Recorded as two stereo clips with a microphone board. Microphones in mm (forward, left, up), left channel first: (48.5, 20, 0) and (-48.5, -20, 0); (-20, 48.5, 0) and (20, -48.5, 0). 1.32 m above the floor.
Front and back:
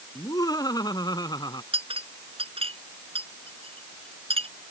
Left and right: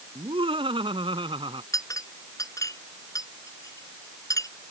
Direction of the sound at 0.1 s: 35° right.